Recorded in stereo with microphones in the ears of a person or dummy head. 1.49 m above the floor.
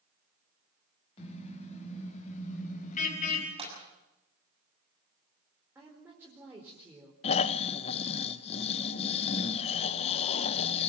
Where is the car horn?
35° left (ahead or behind), 5.5 m; by 3.5 s 50° left (ahead or behind), 4 m.